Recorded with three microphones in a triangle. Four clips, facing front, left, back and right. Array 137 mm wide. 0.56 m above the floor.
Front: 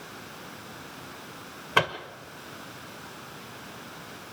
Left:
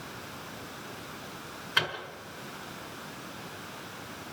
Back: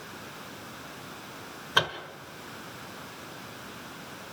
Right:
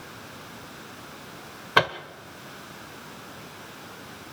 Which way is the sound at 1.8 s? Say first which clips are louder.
Right 10 dB, front 3 dB; 70° right.